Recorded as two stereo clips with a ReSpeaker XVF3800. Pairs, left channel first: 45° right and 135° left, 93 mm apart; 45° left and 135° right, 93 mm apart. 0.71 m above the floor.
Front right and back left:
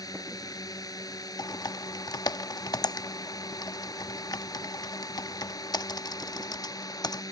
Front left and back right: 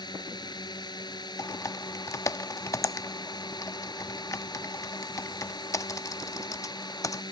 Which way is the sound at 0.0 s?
5° left.